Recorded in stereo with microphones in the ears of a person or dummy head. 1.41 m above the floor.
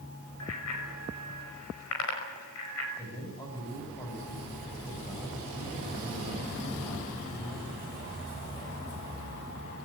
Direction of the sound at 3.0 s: 20° left (ahead or behind).